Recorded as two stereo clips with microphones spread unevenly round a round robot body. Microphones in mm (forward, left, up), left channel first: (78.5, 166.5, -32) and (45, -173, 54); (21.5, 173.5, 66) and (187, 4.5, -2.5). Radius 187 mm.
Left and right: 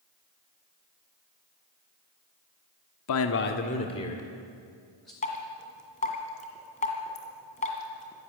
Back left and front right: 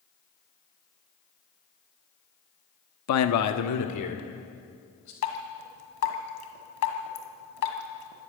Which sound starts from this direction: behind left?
A man speaking, at 3.1 s.